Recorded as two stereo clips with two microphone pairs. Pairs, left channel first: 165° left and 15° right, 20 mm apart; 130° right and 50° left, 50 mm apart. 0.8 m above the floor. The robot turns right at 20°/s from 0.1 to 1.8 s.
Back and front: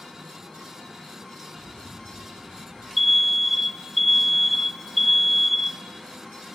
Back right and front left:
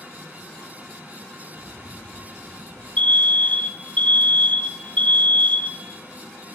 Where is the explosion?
100° left, 9.5 m; by 2.9 s 105° left, 9.5 m.